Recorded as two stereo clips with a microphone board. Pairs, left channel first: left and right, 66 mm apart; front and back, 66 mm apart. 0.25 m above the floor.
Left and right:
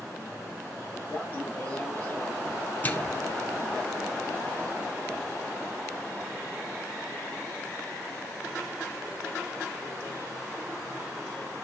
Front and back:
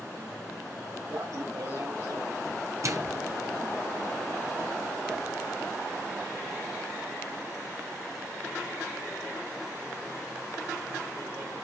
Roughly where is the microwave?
Behind left.